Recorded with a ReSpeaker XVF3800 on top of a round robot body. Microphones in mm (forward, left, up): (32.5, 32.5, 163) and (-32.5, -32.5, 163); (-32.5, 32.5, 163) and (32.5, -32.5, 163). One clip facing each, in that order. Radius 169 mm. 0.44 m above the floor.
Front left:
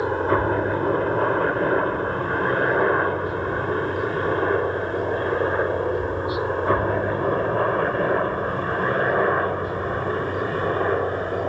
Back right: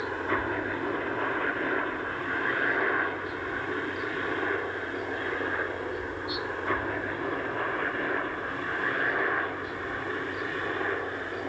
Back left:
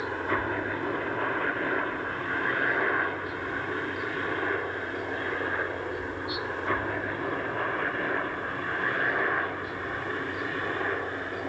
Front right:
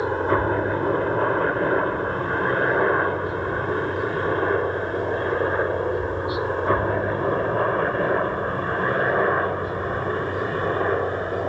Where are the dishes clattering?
No dishes clattering in this recording.